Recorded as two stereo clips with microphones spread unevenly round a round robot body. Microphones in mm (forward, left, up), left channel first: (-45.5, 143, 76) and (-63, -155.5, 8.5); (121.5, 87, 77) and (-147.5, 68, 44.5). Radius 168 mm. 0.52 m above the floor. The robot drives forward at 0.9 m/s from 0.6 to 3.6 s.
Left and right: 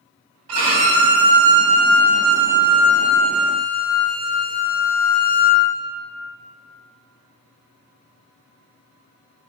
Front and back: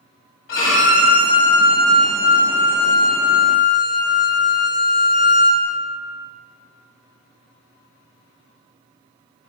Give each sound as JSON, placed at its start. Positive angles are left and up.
{"t": 0.5, "sound": "a violin", "azimuth_deg": -50, "distance_m": 1.8}